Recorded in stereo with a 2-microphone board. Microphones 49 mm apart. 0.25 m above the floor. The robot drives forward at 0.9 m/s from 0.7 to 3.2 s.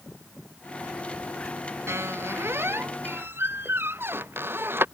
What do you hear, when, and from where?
1.9 s a squeak: 65° right (ahead or behind); by 4.8 s 55° right (ahead or behind)